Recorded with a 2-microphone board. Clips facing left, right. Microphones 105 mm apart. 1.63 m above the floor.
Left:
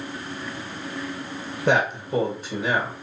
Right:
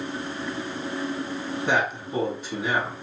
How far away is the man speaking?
About 1.7 m.